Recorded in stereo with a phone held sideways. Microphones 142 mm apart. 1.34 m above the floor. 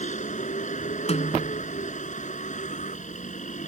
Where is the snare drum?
50° left (ahead or behind).